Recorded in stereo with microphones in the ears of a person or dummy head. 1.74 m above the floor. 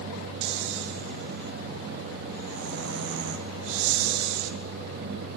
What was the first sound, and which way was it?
Snoring, 75° right (ahead or behind).